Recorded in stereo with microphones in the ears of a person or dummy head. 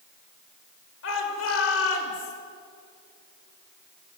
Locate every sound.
1.0 s a shout: 75° left (ahead or behind), 6 m; by 2.3 s 85° left, 5.5 m